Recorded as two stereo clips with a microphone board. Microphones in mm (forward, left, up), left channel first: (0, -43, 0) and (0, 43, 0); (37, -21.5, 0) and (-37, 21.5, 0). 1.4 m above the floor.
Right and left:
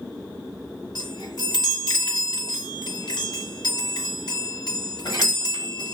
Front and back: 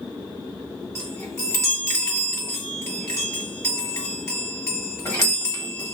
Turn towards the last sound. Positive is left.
turn(degrees=-80)